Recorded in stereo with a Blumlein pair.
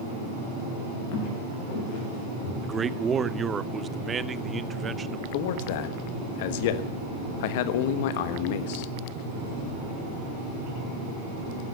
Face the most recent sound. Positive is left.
turn(degrees=50)